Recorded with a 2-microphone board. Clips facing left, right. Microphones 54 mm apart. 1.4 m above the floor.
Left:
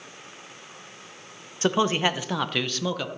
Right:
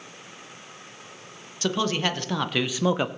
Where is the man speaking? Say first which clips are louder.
Left 3 dB; 25° left (ahead or behind), 1.3 m; by 3.1 s 30° right (ahead or behind), 0.8 m.